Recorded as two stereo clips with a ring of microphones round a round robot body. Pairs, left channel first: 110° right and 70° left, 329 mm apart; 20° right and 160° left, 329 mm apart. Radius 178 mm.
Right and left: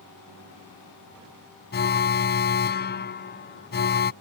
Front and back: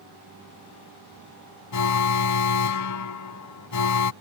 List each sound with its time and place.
1.7 s an alarm: 55° right